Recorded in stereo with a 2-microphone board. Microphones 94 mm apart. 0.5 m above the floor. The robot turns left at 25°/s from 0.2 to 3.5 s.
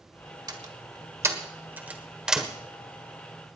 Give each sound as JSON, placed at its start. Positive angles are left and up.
{"t": 0.5, "sound": "a door slam", "side_deg": -45, "distance_m": 1.4}